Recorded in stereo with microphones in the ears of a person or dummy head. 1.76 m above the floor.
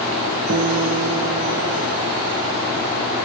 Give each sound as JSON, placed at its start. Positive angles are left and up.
{"t": 0.5, "sound": "a guitar", "side_deg": -50, "distance_m": 0.5}